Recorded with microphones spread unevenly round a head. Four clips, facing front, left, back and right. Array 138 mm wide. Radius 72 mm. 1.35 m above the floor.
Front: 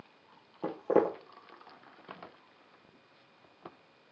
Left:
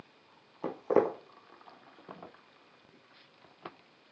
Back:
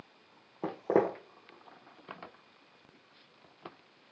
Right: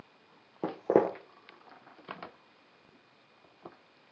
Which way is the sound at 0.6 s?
110° right.